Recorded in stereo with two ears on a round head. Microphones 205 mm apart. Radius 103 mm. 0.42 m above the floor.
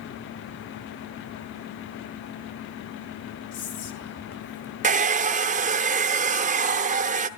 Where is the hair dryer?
35° right (ahead or behind), 0.8 m.